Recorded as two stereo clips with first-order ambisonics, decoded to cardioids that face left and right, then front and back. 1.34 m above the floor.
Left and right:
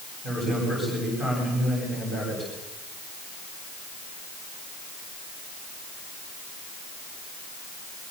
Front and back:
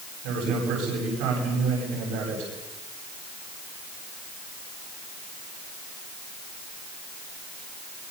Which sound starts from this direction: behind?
A man speaking, at 0.2 s.